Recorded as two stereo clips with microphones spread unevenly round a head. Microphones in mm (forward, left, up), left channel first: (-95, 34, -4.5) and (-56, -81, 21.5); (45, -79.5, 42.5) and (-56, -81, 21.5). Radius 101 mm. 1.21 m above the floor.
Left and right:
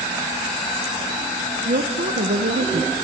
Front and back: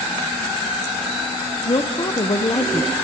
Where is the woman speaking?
45° right, 1.0 m.